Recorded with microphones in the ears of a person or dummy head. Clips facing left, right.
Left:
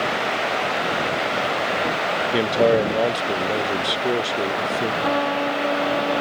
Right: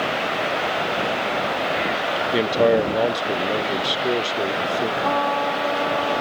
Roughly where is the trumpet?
Centre.